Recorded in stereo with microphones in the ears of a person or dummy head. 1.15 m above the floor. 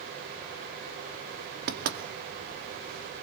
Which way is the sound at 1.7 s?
55° right (ahead or behind).